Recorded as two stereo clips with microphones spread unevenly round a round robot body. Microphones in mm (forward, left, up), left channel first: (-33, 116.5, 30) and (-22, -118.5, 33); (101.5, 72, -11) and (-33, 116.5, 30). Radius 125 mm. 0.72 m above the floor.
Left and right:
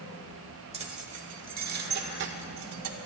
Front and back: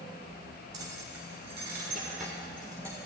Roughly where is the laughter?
No laughter in this recording.